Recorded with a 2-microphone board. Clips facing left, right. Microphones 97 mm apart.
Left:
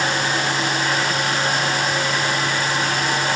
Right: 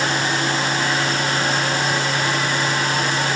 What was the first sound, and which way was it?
Only background noise.